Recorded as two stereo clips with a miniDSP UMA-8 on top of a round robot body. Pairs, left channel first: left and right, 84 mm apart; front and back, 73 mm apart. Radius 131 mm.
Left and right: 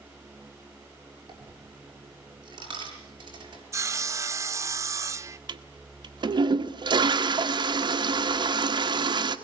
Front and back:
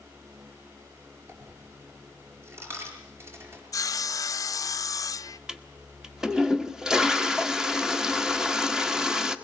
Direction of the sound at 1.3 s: 125° right.